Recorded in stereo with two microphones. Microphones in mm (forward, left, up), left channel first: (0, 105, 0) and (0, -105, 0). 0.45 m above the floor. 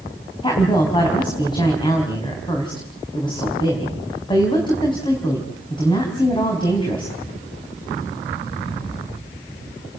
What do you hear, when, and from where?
0.4 s a woman speaking: 20° left (ahead or behind), 4 m